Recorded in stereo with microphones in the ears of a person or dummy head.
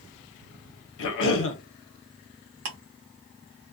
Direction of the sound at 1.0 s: 75° left (ahead or behind).